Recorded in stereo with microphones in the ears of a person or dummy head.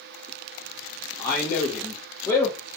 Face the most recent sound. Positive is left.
turn(degrees=20)  # may be behind; listen again after turning